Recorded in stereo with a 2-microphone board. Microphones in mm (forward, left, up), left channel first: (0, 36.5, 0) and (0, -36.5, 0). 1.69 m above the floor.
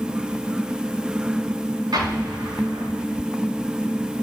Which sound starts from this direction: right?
An explosion, at 1.9 s.